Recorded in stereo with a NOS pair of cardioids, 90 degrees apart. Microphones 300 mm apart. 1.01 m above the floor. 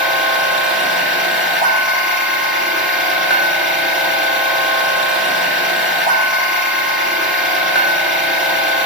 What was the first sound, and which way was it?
A machine running, 40° right.